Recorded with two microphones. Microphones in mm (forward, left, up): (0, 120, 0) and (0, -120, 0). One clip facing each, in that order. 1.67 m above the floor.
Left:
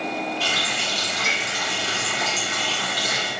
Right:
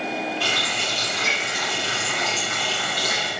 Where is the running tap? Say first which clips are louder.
Right 1 dB; 70° right (ahead or behind), 4 m.